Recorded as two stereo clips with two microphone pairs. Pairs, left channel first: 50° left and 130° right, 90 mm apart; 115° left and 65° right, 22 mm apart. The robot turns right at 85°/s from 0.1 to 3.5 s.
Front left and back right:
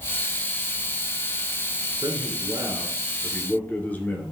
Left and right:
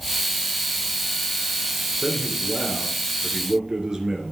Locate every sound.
2.0 s a man speaking: 145° right, 2.5 m; by 4.3 s 20° right, 2.5 m